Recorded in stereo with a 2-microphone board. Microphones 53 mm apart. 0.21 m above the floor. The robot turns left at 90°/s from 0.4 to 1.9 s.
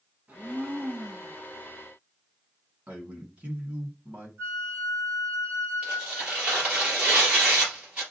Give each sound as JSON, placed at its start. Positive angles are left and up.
{"t": 0.3, "sound": "a blender", "azimuth_deg": -35, "distance_m": 1.6}
{"t": 2.9, "sound": "a man speaking", "side_deg": -25, "distance_m": 1.8}
{"t": 4.4, "sound": "a flute", "side_deg": -55, "distance_m": 1.3}
{"t": 5.8, "sound": "tearing paper", "side_deg": -25, "distance_m": 3.0}